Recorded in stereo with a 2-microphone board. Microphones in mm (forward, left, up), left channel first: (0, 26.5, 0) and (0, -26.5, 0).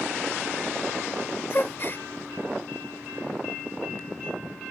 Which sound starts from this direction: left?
A gasp, at 1.5 s.